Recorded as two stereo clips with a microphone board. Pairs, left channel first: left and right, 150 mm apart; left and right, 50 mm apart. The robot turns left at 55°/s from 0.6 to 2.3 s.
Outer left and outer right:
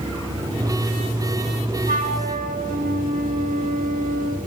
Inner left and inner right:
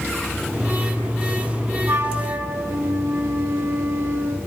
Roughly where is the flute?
Right.